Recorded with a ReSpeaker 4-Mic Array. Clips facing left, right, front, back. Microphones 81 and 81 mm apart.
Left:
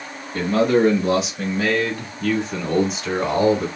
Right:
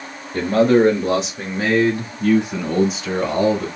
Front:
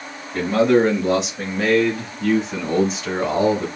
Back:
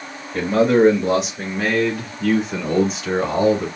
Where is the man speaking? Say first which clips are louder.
Right 3 dB, even; 90° right, 1.9 m; by 3.7 s 85° left, 1.3 m.